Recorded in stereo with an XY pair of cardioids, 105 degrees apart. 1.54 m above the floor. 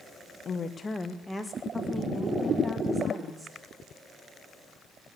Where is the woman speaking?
45° left, 0.7 m; by 3.6 s 20° right, 2.5 m.